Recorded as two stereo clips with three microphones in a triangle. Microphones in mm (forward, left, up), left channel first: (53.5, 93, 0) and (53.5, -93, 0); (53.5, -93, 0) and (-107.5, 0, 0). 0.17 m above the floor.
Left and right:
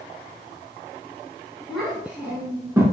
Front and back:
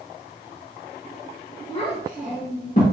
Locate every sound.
1.7 s a child speaking: straight ahead, 1.3 m; by 2.8 s 15° right, 1.7 m